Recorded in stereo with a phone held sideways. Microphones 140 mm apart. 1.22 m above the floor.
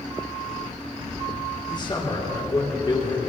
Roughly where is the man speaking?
Left.